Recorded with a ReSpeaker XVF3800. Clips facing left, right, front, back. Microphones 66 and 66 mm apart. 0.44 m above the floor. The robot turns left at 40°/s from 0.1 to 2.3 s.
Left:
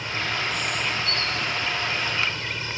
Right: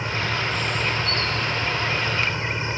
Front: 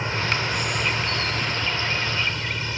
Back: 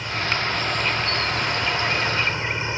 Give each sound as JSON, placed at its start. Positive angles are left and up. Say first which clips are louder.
{"t": 0.0, "sound": "an insect", "louder": "right 2 dB, even", "azimuth_deg": -45}